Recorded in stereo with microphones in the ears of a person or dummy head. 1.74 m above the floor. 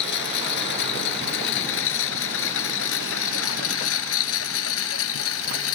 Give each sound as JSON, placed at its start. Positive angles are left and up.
{"t": 0.0, "sound": "a lawn mower", "side_deg": 60}